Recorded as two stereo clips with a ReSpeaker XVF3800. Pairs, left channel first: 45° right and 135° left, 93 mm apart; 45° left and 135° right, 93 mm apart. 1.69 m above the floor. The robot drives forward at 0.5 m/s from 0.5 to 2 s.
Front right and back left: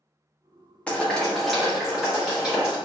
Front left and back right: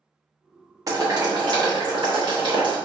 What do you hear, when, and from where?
0.9 s boiling: 115° right, 1.0 m; by 2.8 s 145° right, 1.2 m